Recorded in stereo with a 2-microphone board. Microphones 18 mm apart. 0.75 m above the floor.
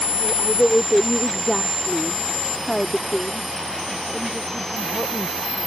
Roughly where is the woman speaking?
Left.